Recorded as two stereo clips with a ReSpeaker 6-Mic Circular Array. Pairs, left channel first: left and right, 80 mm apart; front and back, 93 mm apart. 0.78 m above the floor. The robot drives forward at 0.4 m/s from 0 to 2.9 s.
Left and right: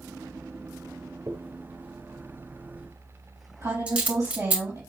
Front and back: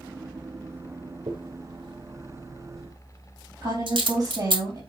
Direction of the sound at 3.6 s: 140° right.